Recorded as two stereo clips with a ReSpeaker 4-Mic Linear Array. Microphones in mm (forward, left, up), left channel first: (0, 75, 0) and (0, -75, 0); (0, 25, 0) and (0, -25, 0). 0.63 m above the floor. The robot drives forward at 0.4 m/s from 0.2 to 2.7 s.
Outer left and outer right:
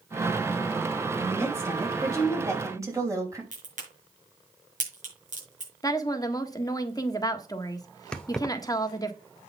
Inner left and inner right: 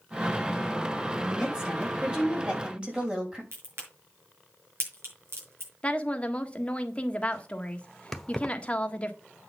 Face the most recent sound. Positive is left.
turn(degrees=5)  # may be behind; listen again after turning